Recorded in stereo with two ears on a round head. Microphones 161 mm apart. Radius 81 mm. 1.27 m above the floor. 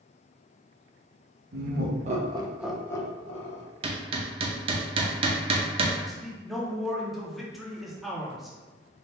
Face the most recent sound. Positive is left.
turn(degrees=0)  # may be behind; listen again after turning